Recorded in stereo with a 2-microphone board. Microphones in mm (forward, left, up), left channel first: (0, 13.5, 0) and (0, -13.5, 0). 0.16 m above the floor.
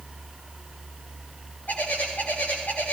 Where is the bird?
85° left, 8.5 m.